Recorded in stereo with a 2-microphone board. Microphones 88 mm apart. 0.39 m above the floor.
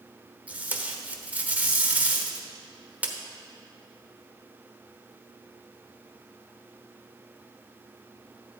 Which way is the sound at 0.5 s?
20° right (ahead or behind).